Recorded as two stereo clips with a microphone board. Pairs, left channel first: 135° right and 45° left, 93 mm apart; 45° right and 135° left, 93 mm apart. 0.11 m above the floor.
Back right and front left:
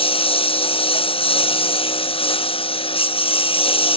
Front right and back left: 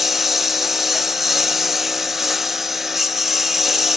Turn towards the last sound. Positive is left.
turn(degrees=-140)